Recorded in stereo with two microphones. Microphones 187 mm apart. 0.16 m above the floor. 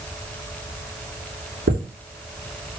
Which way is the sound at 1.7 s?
65° right (ahead or behind).